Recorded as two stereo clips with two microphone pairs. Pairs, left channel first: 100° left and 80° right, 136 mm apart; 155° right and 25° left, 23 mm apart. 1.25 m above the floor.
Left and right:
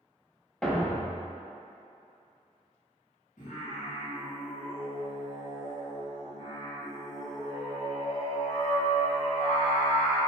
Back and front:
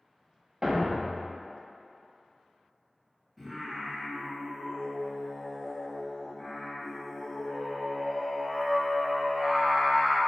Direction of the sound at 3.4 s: 115° left.